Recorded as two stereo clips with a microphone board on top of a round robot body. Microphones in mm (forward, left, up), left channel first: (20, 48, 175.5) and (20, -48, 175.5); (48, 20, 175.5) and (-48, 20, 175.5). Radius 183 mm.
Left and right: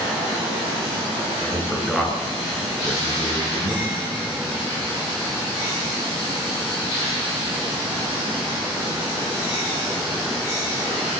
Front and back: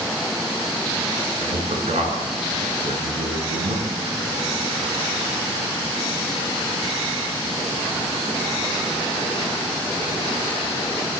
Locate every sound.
1.4 s a man speaking: straight behind, 9.5 m